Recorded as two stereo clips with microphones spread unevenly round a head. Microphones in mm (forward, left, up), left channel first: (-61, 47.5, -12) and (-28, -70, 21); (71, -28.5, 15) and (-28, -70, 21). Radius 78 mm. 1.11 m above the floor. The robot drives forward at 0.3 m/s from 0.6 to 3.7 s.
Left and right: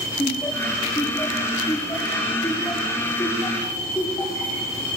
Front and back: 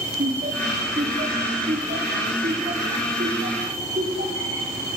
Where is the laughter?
175° left, 3 m.